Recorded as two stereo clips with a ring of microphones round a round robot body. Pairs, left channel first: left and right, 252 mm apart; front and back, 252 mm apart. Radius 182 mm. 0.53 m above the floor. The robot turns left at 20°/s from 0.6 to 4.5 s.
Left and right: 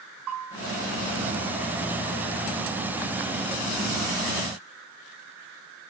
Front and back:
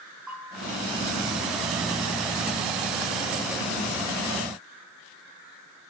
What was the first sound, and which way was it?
A bell, 90° right.